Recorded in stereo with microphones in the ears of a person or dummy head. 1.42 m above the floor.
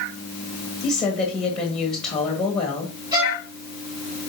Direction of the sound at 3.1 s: 15° right (ahead or behind).